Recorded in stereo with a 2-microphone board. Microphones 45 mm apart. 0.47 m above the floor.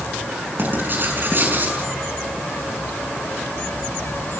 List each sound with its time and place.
0.6 s writing: 45° right (ahead or behind), 6 m